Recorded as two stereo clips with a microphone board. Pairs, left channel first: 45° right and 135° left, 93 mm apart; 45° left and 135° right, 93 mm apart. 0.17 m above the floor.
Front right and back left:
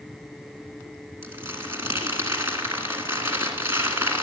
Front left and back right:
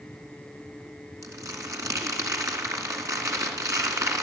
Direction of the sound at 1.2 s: Straight behind.